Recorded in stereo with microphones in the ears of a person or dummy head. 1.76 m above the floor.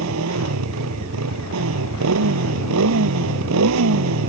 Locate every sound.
0.0 s a motorcycle: 80° right